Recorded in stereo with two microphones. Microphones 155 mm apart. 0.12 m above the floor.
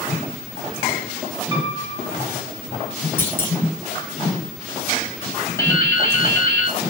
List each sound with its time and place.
1.5 s a piano: 30° right (ahead or behind), 1.9 m
3.2 s a clunk: 15° left (ahead or behind), 0.8 m
5.6 s dripping: 20° left (ahead or behind), 1.0 m